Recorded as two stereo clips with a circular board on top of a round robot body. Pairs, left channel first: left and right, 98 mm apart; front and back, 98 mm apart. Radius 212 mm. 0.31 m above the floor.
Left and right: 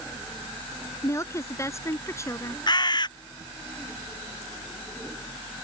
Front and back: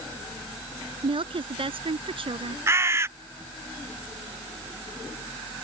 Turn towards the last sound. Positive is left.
turn(degrees=120)